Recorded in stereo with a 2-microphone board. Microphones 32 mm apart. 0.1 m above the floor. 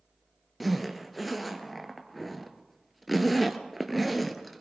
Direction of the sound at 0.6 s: Centre (ahead or behind).